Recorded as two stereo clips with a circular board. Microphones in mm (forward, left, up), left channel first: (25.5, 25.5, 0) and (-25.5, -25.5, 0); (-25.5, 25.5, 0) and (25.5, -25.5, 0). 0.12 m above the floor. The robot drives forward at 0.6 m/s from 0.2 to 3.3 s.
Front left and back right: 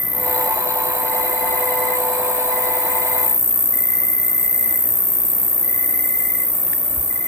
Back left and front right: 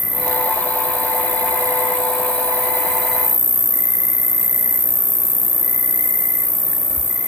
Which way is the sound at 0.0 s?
Straight ahead.